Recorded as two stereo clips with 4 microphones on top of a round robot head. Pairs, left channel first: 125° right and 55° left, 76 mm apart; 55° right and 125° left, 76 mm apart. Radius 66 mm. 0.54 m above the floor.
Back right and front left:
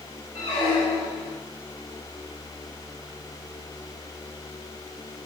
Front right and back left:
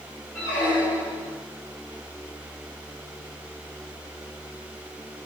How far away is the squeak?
About 2.5 m.